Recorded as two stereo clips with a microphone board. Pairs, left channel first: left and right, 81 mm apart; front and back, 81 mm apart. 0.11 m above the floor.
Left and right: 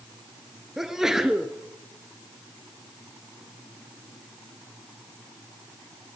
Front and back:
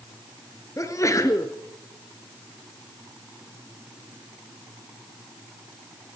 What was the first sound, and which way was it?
A sneeze, 10° right.